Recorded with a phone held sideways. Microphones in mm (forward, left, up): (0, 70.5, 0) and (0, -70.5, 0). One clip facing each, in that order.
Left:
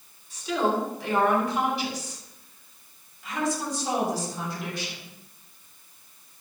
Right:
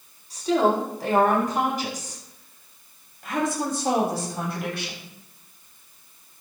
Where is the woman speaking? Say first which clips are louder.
Right 5 dB; 40° right (ahead or behind), 8 m; by 5.1 s 70° right (ahead or behind), 6.5 m.